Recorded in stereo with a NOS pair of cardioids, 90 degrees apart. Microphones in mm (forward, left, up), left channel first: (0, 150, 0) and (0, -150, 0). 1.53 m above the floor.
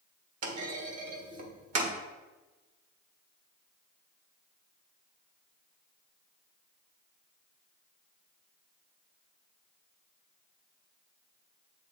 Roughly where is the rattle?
I don't hear a rattle.